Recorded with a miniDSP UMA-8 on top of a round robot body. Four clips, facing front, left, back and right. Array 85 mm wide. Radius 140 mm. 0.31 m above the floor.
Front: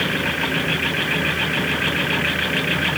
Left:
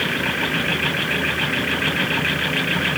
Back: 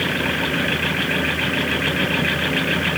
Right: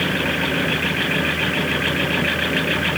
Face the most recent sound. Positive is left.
No sound to turn to.